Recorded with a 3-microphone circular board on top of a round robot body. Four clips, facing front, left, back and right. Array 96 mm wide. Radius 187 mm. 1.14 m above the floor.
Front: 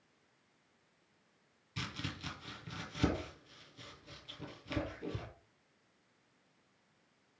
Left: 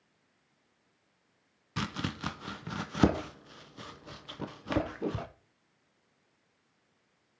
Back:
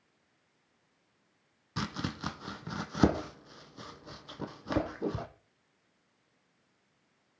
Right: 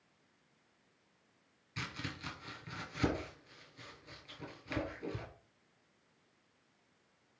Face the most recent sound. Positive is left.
turn(degrees=135)